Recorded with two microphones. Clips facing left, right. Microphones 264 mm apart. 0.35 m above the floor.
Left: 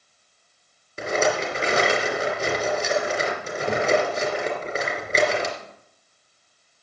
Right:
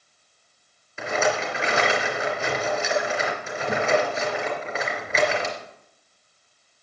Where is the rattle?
40° left (ahead or behind), 3 m.